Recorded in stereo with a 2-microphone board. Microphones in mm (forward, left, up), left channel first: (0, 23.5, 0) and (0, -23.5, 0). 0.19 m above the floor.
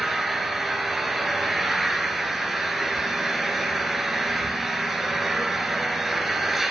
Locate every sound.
0.0 s an engine running: 5° right (ahead or behind), 2.5 m